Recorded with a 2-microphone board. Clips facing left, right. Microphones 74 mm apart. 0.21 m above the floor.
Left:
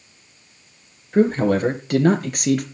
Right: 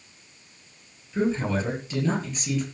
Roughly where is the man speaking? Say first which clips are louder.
Left 8 dB; left.